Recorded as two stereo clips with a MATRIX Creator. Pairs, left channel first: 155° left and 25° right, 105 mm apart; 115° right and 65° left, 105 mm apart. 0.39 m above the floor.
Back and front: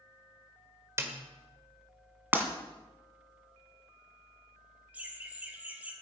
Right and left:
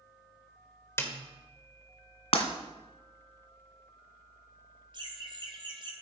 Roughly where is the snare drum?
Ahead right.